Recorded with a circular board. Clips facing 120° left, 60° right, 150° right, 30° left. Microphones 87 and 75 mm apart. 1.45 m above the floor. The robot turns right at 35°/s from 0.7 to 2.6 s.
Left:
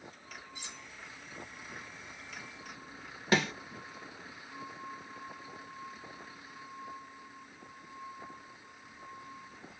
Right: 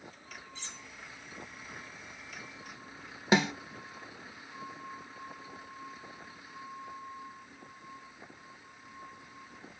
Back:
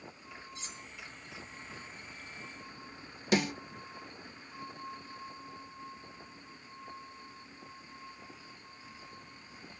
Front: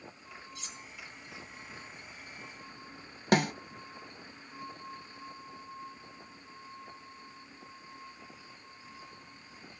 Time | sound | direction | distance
0.6 | cutlery clinking | 170° right | 0.6 m
3.3 | a snare drum | 5° left | 0.8 m